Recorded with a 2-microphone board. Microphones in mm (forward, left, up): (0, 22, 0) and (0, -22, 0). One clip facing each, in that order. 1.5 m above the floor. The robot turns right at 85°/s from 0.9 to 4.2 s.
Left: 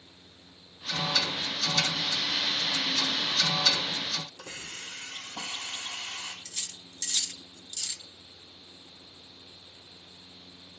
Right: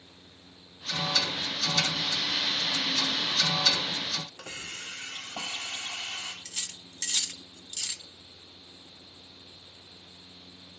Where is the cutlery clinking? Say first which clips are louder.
Right 2 dB; 40° right (ahead or behind), 0.9 m.